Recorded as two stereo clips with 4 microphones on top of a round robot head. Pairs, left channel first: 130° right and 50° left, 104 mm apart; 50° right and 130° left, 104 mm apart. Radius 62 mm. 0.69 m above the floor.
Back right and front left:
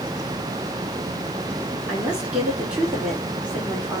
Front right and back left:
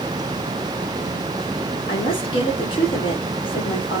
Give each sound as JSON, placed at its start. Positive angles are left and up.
{"t": 1.9, "sound": "a woman speaking", "azimuth_deg": -30, "distance_m": 1.6}